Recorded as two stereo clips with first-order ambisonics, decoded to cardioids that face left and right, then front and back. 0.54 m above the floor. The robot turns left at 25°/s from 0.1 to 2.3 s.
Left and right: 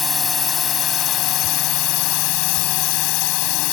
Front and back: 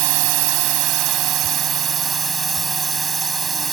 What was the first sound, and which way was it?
A drone, 165° left.